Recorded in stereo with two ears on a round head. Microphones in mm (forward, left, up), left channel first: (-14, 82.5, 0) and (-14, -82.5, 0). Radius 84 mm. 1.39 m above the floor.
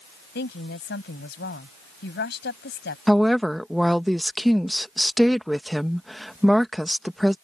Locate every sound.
0.3 s a woman speaking: 70° left (ahead or behind)
3.1 s a woman speaking: centre (ahead or behind)